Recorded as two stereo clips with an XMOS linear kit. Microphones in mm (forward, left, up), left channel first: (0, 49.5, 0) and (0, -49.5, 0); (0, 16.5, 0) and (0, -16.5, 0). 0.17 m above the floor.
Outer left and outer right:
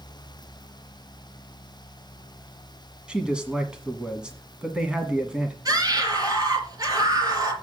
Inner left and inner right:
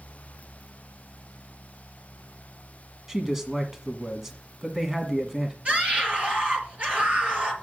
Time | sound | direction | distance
3.1 | a man speaking | 10° right (ahead or behind) | 1.3 m
5.7 | a scream | 35° right (ahead or behind) | 4 m